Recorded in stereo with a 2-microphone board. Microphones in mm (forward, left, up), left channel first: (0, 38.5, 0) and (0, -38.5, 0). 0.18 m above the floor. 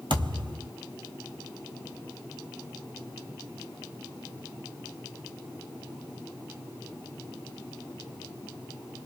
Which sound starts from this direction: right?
A thud, at 0.1 s.